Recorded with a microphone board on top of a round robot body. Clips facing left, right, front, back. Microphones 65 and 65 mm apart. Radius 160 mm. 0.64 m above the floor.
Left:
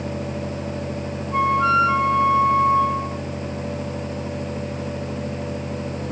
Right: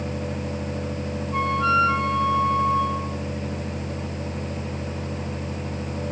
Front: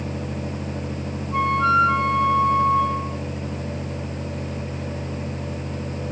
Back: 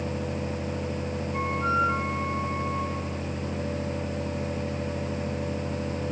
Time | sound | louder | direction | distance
1.3 | a flute | left 3 dB, front 9 dB | 25° left | 3.5 m